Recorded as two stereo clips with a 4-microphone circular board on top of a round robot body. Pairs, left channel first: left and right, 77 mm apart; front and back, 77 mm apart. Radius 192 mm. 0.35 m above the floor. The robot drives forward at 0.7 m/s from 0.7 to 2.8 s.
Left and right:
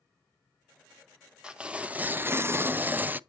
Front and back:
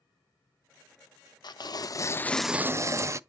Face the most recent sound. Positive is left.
turn(degrees=-150)